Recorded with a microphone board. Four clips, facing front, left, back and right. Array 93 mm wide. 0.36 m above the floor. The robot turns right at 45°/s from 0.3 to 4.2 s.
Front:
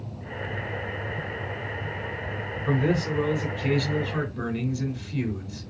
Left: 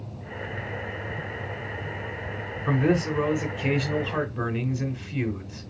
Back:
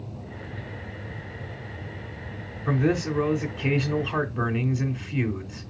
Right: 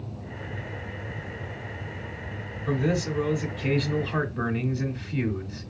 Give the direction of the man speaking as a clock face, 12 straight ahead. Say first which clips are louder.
Left 3 dB, back 1 dB; 9 o'clock.